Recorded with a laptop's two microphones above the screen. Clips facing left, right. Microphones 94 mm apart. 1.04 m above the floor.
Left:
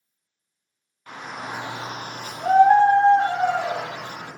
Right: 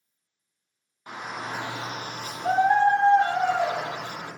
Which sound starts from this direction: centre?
A shout, at 1.1 s.